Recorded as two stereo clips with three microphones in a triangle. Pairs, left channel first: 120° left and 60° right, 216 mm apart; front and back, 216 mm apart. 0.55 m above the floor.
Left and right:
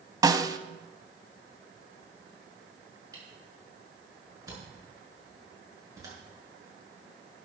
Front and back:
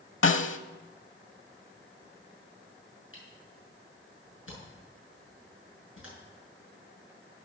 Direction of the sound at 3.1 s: 15° left.